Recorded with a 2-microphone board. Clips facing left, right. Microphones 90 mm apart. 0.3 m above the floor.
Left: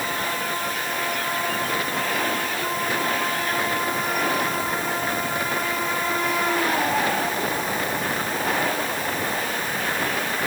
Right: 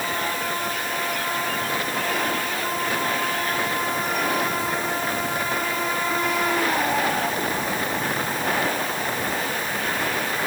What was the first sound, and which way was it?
Only background noise.